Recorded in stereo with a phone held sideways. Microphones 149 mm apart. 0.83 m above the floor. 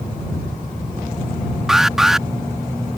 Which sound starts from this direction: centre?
An alarm, at 1.7 s.